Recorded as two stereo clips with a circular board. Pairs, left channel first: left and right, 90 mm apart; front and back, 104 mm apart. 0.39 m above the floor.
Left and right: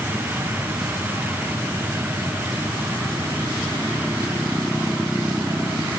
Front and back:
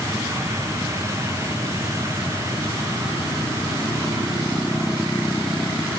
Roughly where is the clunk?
No clunk in this recording.